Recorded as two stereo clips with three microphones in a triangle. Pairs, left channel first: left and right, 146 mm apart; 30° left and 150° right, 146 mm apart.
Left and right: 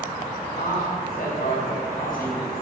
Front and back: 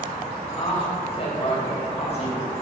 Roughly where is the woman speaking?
Left.